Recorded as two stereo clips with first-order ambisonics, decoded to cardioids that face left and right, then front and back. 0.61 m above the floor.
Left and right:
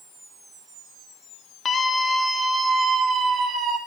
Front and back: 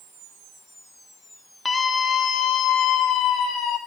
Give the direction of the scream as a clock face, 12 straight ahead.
10 o'clock.